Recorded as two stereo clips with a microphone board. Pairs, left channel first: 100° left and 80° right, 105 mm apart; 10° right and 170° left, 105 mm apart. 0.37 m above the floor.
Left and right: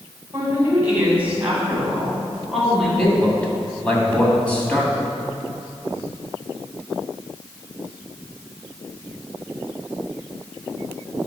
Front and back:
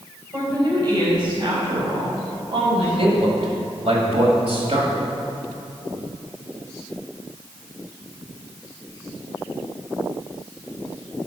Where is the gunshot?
I don't hear a gunshot.